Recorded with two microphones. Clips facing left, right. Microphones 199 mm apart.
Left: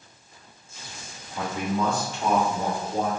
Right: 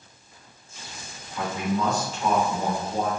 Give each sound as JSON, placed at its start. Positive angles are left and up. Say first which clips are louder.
{"t": 1.4, "sound": "a man speaking", "louder": "even", "side_deg": 35, "distance_m": 1.5}